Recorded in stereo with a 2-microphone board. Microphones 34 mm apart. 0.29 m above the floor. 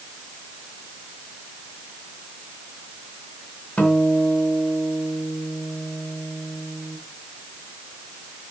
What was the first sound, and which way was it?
A guitar, 40° left (ahead or behind).